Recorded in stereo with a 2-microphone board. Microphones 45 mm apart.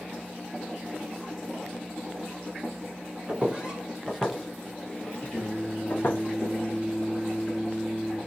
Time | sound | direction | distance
3.3 | footsteps | 30° right (ahead or behind) | 1.4 m
5.3 | singing | 10° left (ahead or behind) | 1.5 m